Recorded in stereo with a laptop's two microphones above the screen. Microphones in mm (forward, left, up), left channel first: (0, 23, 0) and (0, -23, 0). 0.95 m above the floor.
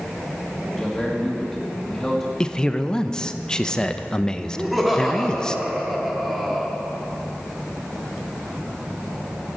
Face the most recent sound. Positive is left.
turn(degrees=0)  # may be behind; listen again after turning